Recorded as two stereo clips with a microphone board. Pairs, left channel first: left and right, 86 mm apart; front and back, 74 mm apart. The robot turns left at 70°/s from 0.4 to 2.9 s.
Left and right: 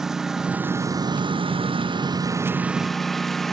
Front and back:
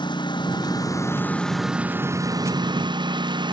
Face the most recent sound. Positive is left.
turn(degrees=180)